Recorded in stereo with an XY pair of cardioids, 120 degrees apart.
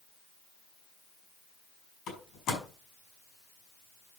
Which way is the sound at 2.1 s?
60° left.